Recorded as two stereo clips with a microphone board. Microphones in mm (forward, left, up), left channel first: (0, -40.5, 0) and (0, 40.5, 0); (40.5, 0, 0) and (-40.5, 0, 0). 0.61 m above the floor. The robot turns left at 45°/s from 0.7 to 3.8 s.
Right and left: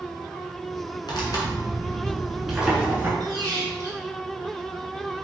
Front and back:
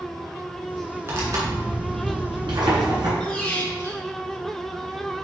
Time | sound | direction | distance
1.1 | tearing paper | 120° right | 2.5 m
3.2 | a squeak | 85° left | 1.3 m